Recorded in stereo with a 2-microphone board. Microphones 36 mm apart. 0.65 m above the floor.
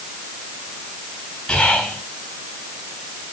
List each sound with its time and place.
1.5 s whispering: 20° left (ahead or behind), 4 m